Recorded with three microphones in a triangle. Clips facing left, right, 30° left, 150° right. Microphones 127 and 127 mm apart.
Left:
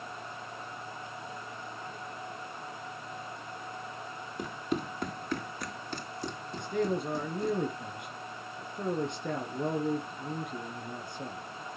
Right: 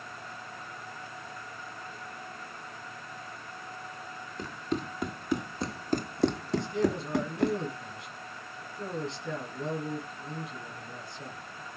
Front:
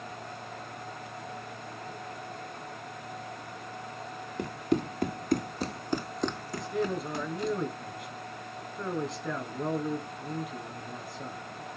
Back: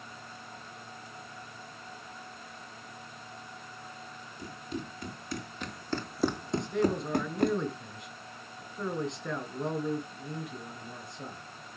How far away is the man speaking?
About 2.5 m.